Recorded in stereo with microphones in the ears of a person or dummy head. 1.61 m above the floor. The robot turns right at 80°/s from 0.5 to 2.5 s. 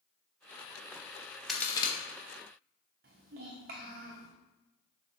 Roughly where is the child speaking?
Right.